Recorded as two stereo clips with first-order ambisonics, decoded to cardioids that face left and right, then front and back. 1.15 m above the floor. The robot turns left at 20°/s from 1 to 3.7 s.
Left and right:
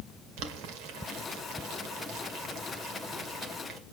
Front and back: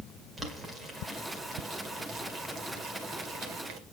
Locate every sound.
0.4 s boiling: 100° right, 2 m; by 3.8 s 155° right, 2 m